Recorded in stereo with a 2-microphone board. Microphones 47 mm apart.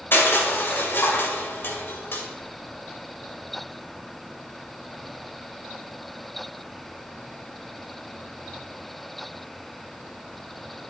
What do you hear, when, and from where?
0.1 s crushing: 50° left (ahead or behind), 2.5 m